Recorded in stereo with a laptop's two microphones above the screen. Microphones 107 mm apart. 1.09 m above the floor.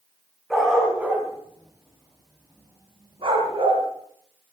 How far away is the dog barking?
About 3.5 m.